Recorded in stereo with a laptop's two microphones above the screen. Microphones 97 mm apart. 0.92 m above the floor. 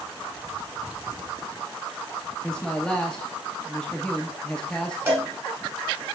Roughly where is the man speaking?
Centre.